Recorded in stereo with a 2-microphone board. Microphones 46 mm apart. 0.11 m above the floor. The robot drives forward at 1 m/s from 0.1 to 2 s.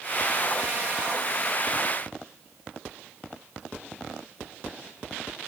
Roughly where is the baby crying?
No baby crying in this recording.